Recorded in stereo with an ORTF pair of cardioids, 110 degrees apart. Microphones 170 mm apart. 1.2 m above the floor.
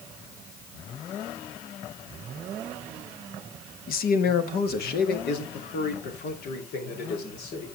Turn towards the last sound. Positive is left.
turn(degrees=70)